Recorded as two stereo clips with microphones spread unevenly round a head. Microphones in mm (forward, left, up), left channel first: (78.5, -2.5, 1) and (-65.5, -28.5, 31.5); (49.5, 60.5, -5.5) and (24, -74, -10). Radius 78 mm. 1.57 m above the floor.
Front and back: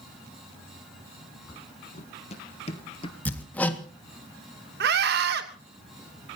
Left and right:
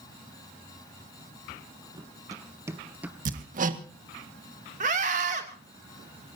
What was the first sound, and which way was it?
Running footsteps, 40° right.